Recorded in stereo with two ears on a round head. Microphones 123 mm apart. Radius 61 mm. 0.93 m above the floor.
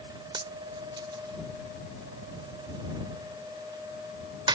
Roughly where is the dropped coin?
Right.